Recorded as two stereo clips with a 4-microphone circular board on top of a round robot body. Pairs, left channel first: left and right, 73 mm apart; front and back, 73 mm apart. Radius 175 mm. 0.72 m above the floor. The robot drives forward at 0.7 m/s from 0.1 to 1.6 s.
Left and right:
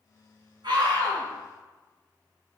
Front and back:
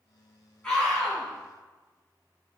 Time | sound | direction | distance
0.6 | a scream | 70° right | 3 m